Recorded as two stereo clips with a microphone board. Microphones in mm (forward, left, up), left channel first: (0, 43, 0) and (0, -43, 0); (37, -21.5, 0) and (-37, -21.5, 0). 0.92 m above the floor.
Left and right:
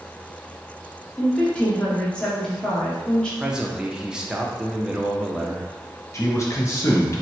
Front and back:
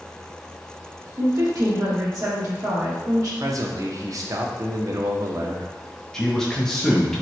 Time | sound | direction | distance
1.2 | a woman speaking | 165° left | 1.1 m
3.4 | a man speaking | 170° right | 0.5 m
6.1 | a man speaking | 75° left | 0.6 m